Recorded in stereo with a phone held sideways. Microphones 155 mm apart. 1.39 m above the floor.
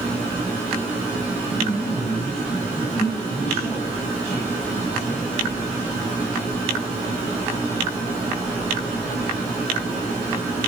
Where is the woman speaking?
40° left (ahead or behind), 7.5 m.